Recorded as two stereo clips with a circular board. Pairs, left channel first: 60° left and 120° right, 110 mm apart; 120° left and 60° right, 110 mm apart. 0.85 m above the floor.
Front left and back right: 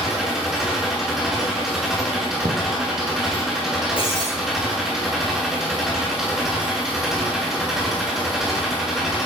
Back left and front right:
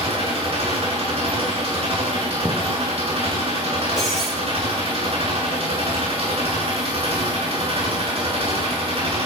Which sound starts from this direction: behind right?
A thud, at 2.5 s.